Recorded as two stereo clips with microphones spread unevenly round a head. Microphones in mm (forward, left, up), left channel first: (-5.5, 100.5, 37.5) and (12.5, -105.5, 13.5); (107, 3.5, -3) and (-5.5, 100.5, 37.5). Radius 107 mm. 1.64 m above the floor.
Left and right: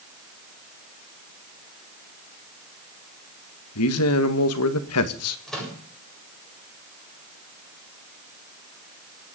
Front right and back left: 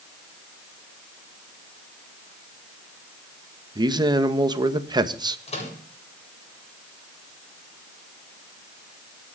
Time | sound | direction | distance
3.8 | a man speaking | 80° left | 2 m
5.5 | a microwave | 5° left | 7.5 m